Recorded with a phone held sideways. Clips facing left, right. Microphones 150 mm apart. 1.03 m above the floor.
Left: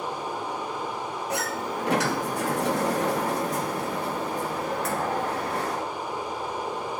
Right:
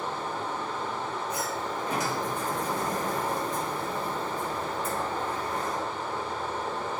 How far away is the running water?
About 1.5 m.